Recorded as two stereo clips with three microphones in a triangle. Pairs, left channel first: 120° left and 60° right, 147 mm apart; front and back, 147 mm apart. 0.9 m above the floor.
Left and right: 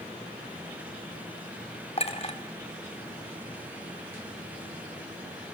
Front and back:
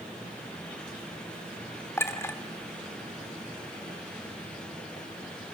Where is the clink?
70° left, 1.4 m.